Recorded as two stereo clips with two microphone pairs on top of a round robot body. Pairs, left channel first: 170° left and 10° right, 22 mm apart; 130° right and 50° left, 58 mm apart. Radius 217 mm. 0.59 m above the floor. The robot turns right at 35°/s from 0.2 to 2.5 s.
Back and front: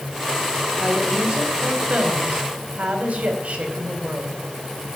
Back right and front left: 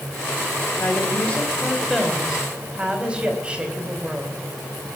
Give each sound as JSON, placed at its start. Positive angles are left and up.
{"t": 0.8, "sound": "a woman speaking", "azimuth_deg": -85, "distance_m": 3.5}